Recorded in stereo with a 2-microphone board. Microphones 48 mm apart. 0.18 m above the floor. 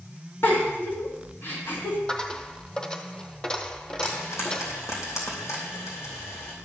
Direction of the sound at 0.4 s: 50° left (ahead or behind).